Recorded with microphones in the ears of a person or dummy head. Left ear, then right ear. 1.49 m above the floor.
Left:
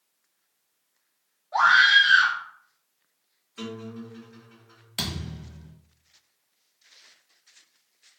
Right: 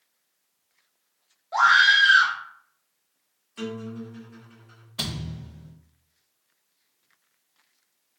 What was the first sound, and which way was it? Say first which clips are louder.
A scream: even; 70° right (ahead or behind).